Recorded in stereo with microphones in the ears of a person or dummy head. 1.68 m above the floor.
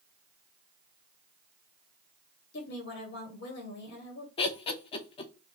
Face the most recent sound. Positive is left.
turn(degrees=30)  # may be behind; listen again after turning